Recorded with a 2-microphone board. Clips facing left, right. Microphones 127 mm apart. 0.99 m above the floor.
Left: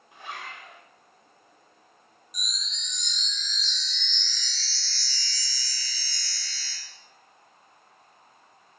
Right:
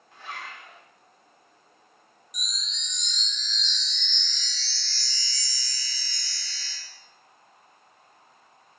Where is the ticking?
No ticking in this recording.